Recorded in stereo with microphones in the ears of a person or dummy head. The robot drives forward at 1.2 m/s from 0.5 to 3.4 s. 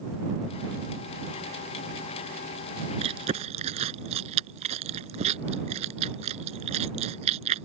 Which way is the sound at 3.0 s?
35° right (ahead or behind).